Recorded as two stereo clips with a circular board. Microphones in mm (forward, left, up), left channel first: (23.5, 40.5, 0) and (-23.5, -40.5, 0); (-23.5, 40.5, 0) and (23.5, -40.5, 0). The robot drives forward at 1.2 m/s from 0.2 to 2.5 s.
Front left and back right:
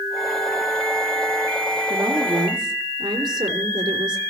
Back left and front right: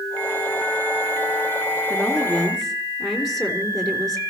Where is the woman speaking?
145° right, 3 m; by 4.2 s 155° right, 3.5 m.